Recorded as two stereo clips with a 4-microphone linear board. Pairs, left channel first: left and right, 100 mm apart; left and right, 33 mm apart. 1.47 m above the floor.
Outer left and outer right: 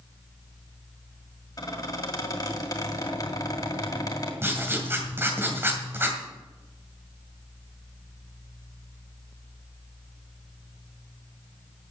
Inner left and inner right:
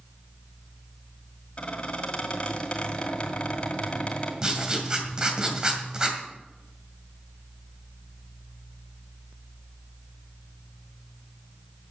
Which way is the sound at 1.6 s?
40° left (ahead or behind).